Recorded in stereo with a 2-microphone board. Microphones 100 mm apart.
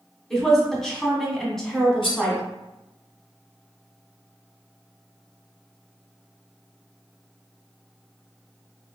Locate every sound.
0.3 s a woman speaking: 5° left (ahead or behind), 1.0 m
2.0 s cutlery clinking: 55° left (ahead or behind), 1.7 m